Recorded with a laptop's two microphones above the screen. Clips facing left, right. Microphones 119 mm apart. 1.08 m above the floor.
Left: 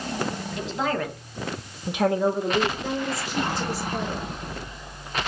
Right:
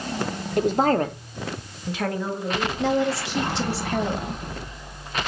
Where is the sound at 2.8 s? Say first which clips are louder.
Right 6 dB; 80° right, 0.8 m.